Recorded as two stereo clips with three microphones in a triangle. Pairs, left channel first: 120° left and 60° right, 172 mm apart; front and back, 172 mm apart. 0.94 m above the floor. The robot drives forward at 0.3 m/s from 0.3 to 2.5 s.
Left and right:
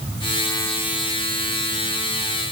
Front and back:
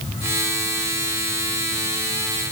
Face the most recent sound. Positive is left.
No sound to turn to.